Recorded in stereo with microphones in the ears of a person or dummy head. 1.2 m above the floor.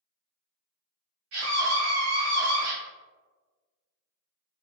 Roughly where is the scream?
Right.